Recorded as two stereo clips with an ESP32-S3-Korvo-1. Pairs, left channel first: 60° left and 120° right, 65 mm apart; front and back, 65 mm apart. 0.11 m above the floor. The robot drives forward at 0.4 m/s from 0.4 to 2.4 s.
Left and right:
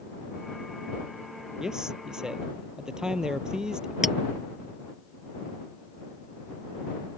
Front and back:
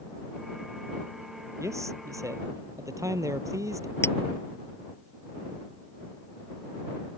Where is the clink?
35° right.